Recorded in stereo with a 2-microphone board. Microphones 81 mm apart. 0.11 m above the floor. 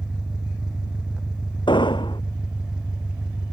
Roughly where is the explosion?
Left.